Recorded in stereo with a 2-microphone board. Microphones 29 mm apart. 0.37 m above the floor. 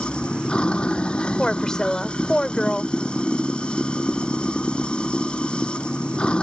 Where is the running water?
40° left (ahead or behind).